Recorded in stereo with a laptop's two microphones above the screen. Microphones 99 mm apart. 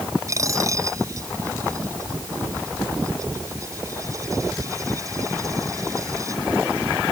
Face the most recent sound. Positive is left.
turn(degrees=-35)  # may be behind; listen again after turning